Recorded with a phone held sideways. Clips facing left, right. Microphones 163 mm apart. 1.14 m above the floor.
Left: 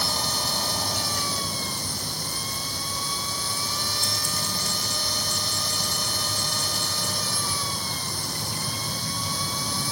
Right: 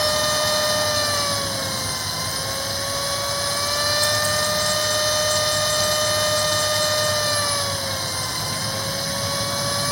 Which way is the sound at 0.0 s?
75° right (ahead or behind).